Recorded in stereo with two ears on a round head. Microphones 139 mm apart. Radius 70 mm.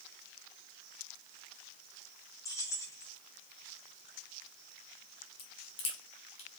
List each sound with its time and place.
2.5 s keys jangling: 20° left (ahead or behind), 3 m
5.4 s a crack: 40° left (ahead or behind), 3 m